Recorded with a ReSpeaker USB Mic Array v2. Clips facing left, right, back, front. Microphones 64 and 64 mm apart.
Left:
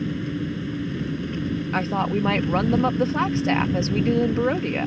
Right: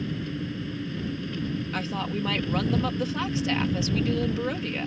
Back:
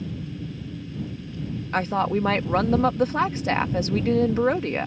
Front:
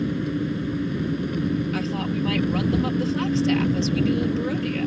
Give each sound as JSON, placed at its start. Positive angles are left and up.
{"t": 0.0, "sound": "an engine running", "azimuth_deg": 20}
{"t": 1.7, "sound": "a woman speaking", "azimuth_deg": 145}